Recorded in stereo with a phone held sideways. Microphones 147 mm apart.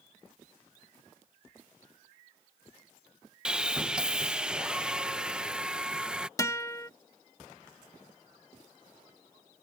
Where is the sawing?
5° right (ahead or behind).